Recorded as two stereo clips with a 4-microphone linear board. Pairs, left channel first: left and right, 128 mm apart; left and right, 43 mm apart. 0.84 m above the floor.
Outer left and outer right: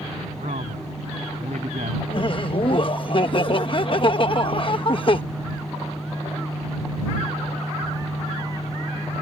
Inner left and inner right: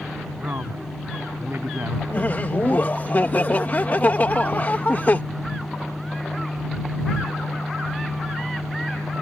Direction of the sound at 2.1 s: 40° left (ahead or behind).